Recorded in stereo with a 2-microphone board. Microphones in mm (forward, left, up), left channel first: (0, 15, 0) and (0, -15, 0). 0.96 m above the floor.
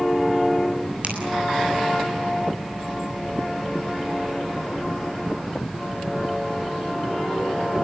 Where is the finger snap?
50° right (ahead or behind), 8 m.